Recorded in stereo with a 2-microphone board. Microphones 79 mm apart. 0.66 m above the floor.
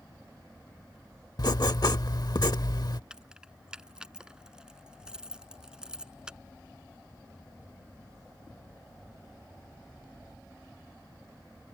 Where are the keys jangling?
10° right (ahead or behind).